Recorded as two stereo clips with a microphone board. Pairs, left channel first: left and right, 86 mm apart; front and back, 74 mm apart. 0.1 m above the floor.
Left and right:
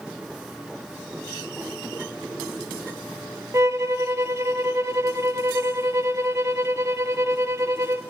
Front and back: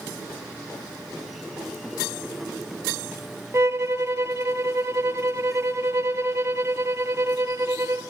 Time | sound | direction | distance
3.5 | a violin | 135° right | 0.5 m